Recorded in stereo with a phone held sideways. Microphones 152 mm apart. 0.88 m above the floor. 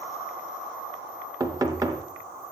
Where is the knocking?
25° right (ahead or behind), 0.8 m.